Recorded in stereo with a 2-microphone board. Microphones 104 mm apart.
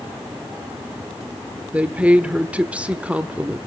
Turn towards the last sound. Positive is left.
turn(degrees=-10)  # may be behind; listen again after turning